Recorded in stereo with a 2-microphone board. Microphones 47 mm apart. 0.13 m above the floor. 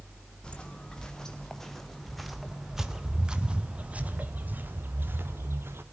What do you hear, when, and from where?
0.4 s footsteps: 20° left (ahead or behind), 3 m; by 5.8 s 60° right (ahead or behind), 2.5 m